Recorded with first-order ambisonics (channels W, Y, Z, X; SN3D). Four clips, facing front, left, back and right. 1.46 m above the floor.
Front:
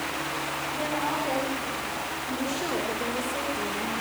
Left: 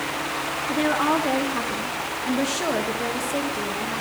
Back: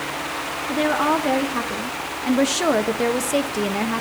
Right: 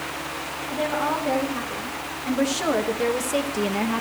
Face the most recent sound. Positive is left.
turn(degrees=-145)